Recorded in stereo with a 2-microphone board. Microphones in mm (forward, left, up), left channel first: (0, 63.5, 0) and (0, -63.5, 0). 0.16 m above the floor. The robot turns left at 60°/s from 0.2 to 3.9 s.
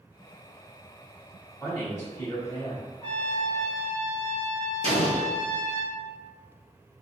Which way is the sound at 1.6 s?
15° left (ahead or behind).